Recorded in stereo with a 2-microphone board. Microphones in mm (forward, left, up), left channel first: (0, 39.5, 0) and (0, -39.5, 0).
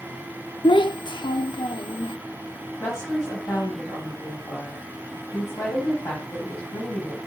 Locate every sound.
0.6 s a child speaking: 85° left, 0.5 m
2.8 s a woman speaking: 40° left (ahead or behind), 3.5 m